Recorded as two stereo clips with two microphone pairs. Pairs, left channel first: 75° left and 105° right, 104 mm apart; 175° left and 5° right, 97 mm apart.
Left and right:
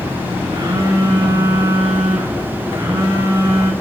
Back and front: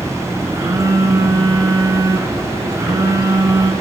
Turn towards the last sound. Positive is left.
turn(degrees=-55)